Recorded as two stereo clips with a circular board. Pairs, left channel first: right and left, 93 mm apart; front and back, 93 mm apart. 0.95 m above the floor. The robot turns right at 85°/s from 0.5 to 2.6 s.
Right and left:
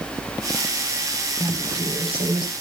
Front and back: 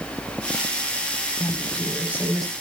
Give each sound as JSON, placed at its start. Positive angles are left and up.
{"t": 1.4, "sound": "a woman speaking", "azimuth_deg": 40, "distance_m": 7.5}